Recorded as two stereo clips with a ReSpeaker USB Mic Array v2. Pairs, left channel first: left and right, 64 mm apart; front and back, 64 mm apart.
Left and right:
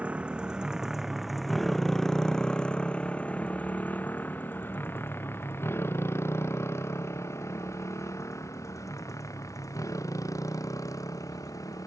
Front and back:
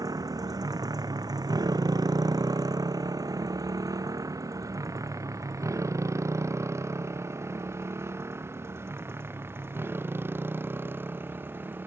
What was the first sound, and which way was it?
A motorcycle, 160° right.